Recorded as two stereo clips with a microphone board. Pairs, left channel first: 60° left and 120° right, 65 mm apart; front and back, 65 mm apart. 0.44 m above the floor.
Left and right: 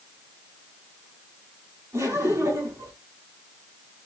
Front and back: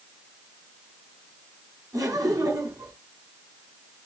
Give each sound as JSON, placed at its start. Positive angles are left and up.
{"t": 1.9, "sound": "laughter", "azimuth_deg": -155, "distance_m": 4.5}